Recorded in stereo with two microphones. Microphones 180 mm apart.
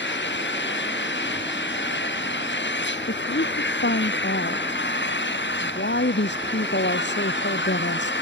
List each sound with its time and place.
0.0 s an engine running: 80° left
3.1 s a woman speaking: 75° left (ahead or behind)